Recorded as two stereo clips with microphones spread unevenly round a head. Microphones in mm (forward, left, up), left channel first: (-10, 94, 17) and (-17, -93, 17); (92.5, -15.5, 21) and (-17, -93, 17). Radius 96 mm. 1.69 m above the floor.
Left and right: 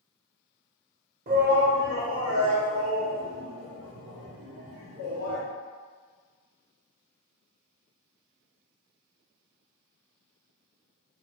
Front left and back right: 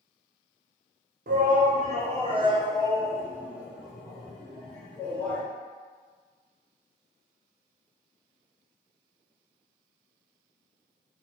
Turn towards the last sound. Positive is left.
turn(degrees=-45)